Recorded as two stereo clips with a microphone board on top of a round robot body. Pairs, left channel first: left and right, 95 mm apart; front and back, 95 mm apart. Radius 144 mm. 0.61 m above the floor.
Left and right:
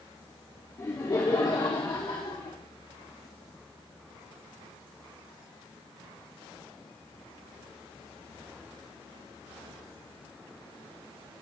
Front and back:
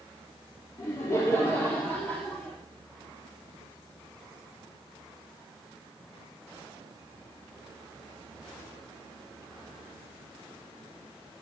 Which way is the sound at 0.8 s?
45° left.